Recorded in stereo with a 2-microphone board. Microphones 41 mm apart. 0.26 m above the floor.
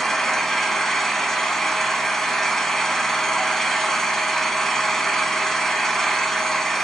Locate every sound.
0.0 s an engine running: 5° left (ahead or behind), 0.8 m